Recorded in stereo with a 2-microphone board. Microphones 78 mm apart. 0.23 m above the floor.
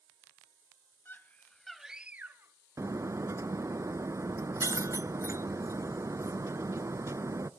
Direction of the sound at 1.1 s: 25° left (ahead or behind).